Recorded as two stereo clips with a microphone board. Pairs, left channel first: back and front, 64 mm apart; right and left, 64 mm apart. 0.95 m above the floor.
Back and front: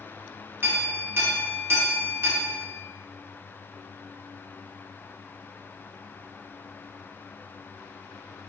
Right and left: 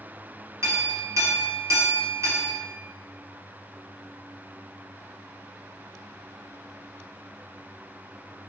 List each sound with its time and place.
0.6 s a clink: 50° left, 0.8 m